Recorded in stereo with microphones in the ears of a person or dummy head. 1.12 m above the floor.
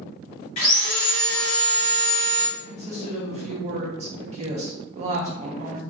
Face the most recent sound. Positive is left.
turn(degrees=-30)  # may be behind; listen again after turning